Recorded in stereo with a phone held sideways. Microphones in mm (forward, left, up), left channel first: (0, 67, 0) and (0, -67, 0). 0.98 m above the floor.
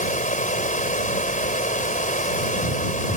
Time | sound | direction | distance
0.0 | running water | 80° left | ?